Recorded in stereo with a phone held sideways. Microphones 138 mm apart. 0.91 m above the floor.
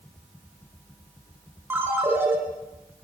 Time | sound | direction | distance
1.7 | a ringtone | 15° right (ahead or behind) | 4.5 m